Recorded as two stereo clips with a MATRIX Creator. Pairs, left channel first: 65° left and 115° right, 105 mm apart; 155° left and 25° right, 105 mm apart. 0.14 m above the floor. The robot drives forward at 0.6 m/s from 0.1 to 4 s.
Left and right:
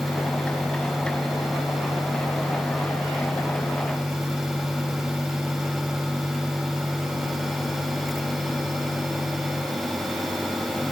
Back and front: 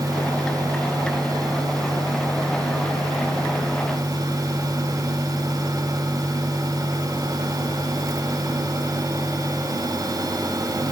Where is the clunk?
No clunk in this recording.